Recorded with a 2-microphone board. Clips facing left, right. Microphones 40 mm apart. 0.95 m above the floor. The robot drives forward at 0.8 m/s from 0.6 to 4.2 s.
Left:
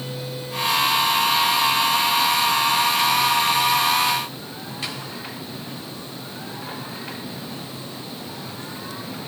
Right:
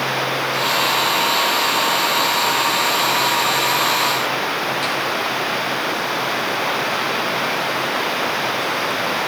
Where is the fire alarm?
No fire alarm in this recording.